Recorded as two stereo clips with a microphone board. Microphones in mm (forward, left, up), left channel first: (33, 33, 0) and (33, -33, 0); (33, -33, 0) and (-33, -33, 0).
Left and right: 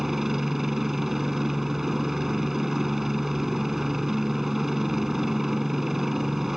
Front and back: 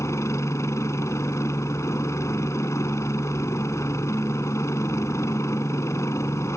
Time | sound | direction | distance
0.0 | a helicopter | 5° right | ?